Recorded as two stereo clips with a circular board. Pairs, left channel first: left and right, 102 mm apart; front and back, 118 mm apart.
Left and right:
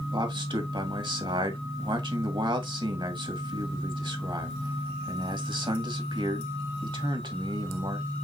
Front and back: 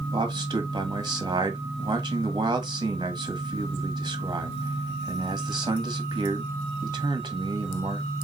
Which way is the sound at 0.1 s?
130° right.